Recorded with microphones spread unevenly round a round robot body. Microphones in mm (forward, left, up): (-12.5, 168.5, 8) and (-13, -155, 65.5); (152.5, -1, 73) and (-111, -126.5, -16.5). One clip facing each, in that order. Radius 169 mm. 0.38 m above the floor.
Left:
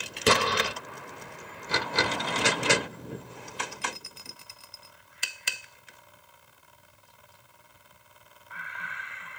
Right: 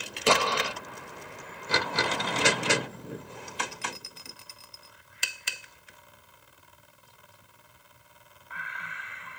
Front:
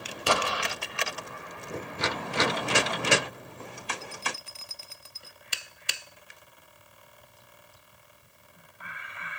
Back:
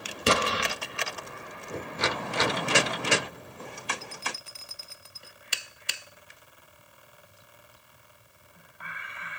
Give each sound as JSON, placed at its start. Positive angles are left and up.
{"t": 0.3, "sound": "an explosion", "azimuth_deg": 150, "distance_m": 0.8}